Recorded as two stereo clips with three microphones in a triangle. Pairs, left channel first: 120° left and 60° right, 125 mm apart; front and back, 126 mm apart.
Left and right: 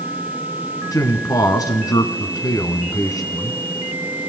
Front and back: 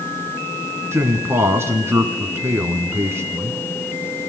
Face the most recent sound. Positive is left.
turn(degrees=135)